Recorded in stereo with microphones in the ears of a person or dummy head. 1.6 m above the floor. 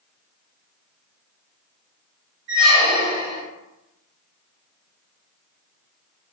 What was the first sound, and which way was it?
A squeak, 55° right (ahead or behind).